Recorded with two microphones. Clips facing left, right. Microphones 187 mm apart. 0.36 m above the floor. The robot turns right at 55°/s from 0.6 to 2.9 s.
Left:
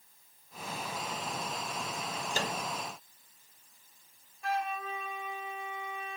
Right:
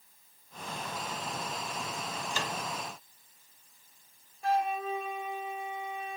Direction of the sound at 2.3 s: 40° left (ahead or behind).